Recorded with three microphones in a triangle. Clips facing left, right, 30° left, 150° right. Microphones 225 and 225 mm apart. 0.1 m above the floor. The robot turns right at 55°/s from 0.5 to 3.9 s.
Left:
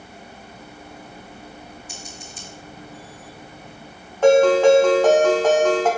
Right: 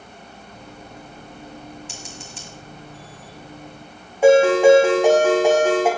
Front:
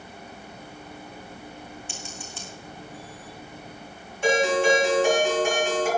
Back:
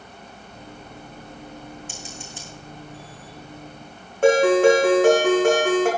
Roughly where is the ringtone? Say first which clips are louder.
Right 1 dB, back 7 dB; behind.